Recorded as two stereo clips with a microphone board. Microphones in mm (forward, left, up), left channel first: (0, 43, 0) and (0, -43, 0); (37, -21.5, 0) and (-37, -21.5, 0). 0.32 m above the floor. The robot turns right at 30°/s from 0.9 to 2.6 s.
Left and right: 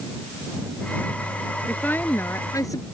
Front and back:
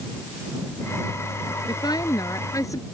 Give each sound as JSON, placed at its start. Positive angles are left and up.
{"t": 1.7, "sound": "a woman speaking", "azimuth_deg": 15}